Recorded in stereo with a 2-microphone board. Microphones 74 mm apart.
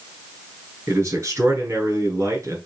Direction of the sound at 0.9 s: 50° right (ahead or behind).